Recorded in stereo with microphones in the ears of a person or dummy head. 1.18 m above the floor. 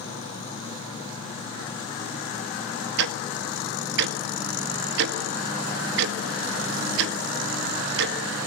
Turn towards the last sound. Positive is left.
turn(degrees=-65)  # may be behind; listen again after turning